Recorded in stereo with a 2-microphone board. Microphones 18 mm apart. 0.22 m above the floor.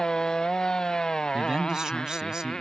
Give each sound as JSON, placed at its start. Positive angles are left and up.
{"t": 0.0, "sound": "a motorcycle", "side_deg": 40}
{"t": 1.3, "sound": "a man speaking", "side_deg": -40}